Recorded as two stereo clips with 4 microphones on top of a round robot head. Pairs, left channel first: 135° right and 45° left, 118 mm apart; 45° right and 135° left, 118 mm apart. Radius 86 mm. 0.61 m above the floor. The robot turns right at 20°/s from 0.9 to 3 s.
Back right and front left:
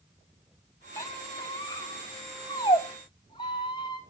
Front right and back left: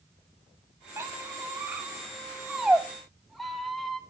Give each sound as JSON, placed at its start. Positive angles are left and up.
{"t": 1.0, "sound": "a squeak", "azimuth_deg": -170, "distance_m": 0.6}